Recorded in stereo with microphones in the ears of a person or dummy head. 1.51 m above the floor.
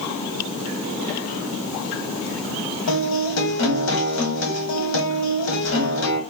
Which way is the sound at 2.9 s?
65° left (ahead or behind).